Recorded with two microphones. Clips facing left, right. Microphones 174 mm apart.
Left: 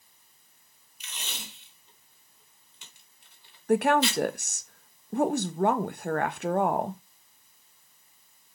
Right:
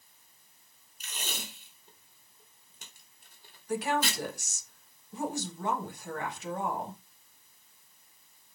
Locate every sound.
1.0 s tape being pulled: 45° right (ahead or behind), 4 m
3.7 s a woman speaking: 65° left (ahead or behind), 1.2 m